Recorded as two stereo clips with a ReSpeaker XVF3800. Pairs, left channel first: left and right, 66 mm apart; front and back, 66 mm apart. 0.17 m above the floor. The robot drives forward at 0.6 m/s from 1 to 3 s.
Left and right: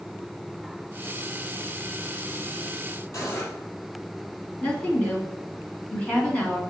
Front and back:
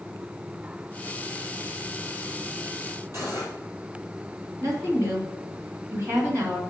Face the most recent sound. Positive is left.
turn(degrees=155)